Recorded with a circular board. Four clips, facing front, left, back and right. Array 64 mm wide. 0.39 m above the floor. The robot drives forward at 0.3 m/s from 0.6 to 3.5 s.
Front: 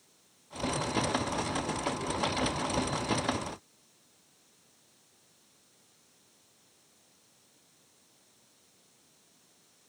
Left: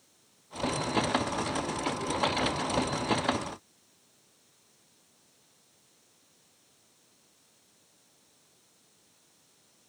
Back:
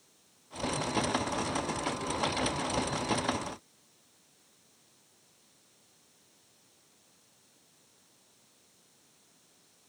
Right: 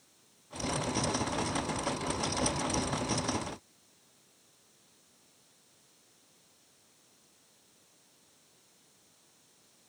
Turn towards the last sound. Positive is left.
No sound to turn to.